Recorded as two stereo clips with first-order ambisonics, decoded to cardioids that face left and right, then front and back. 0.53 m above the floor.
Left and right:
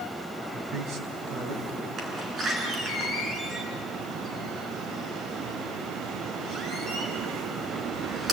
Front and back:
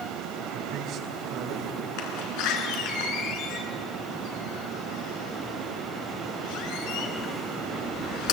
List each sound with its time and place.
0.5 s a man speaking: 135° right, 4 m
2.0 s a door slam: 20° right, 4 m